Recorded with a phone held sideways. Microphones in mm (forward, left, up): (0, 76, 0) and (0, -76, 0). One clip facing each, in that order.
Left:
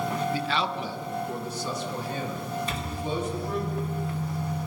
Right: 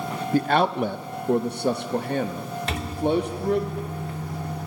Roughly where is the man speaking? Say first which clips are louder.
Right 8 dB; right.